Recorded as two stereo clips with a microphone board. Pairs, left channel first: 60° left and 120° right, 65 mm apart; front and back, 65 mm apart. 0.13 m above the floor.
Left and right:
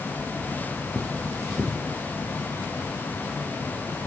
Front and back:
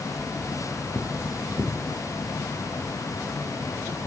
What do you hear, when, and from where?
0.9 s cutlery clinking: 10° right, 2.5 m